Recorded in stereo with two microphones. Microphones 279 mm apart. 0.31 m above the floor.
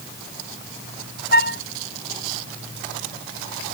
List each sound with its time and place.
1.3 s a flute: 35° left (ahead or behind)